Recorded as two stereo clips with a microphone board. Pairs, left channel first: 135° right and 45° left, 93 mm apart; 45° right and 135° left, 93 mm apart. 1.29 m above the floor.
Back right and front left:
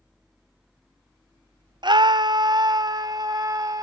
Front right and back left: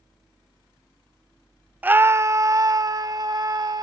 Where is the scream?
65° left; by 3.8 s 90° left.